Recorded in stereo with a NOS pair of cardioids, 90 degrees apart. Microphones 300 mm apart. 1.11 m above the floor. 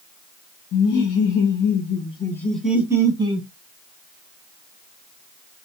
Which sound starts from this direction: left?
Laughter, at 0.7 s.